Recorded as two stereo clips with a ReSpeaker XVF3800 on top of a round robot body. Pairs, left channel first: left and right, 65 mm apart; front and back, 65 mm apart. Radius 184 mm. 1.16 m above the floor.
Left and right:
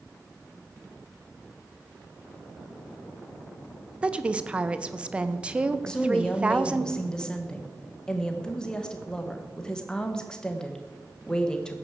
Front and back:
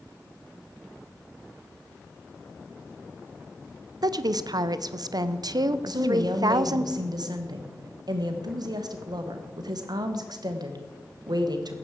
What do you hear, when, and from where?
4.0 s a woman speaking: 160° right, 0.8 m
5.9 s a woman speaking: 170° left, 1.6 m